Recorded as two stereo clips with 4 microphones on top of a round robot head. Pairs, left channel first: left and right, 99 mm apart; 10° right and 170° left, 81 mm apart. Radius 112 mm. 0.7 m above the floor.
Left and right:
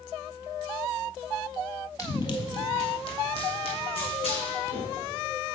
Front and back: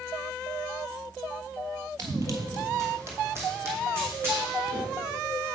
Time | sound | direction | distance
2.0 | running footsteps | 140° left | 1.0 m